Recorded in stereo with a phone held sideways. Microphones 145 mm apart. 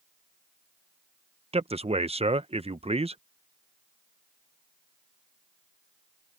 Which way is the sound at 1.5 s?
45° right (ahead or behind).